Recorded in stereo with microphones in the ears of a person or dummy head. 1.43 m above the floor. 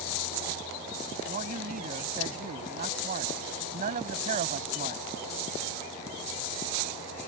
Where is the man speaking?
40° right (ahead or behind).